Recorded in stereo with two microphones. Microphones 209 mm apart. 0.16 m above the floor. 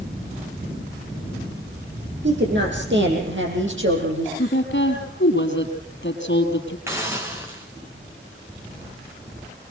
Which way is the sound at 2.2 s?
60° right (ahead or behind).